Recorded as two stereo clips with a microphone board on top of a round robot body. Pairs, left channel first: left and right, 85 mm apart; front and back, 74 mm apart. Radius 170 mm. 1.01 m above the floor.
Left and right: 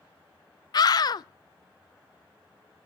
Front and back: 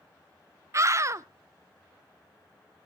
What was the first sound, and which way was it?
A scream, 130° left.